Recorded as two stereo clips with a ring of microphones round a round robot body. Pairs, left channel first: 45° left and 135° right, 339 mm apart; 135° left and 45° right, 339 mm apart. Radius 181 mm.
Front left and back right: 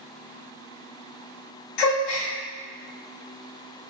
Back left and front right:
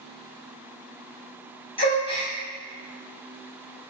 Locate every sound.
1.8 s a gasp: 60° left, 0.7 m